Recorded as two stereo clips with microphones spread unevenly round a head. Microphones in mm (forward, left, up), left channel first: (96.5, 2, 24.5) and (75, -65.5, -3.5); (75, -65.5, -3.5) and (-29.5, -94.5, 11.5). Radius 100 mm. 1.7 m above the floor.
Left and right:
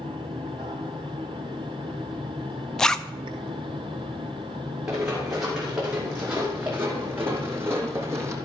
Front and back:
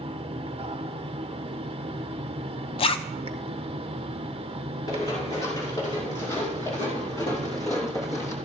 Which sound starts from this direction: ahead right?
Running footsteps, at 4.9 s.